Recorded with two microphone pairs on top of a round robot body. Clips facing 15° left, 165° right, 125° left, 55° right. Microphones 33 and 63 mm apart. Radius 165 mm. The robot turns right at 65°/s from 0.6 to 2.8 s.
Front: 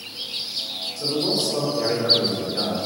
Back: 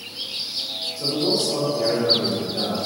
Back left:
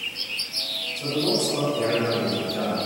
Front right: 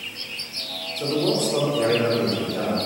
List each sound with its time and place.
1.0 s a man speaking: 80° right, 1.3 m; by 2.8 s 40° left, 1.3 m